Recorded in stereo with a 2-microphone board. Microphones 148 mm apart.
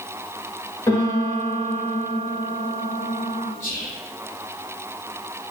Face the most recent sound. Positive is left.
turn(degrees=20)  # may be behind; listen again after turning